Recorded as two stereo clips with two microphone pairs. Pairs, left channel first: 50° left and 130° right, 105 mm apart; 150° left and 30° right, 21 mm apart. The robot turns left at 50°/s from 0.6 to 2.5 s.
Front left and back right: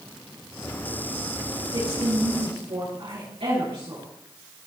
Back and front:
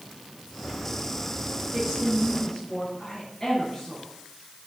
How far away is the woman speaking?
About 6.5 m.